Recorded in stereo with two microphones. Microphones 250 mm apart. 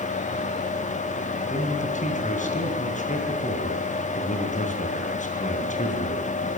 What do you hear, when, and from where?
1.5 s a man speaking: 30° left (ahead or behind), 3 m